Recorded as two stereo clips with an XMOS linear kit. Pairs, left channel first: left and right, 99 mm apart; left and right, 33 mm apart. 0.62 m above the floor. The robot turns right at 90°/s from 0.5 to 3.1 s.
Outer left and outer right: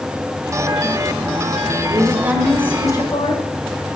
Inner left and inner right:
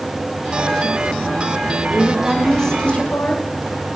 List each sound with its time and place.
1.9 s a woman speaking: 55° right, 2.5 m; by 3.5 s 55° left, 2.5 m